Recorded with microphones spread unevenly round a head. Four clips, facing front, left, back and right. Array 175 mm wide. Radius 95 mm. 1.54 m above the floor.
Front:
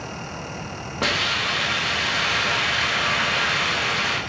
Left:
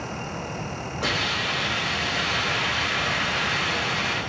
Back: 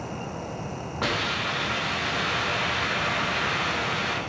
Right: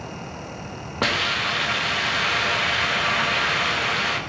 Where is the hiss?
65° right, 2.5 m.